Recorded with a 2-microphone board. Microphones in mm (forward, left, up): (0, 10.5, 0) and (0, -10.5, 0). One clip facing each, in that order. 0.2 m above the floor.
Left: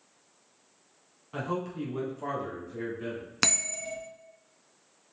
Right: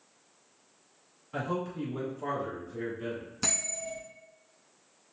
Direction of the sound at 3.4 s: 65° left (ahead or behind).